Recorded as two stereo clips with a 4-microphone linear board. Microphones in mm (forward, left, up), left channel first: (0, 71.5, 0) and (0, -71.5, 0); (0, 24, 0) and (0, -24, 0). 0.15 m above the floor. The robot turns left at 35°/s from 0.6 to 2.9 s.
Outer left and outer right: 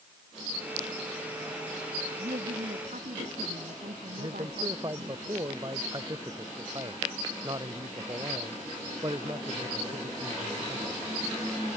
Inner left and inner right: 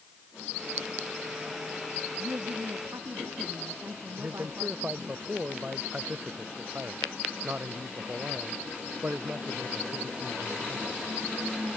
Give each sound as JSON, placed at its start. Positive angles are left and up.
{"t": 2.2, "sound": "a woman speaking", "side_deg": -55}
{"t": 4.2, "sound": "a man speaking", "side_deg": -30}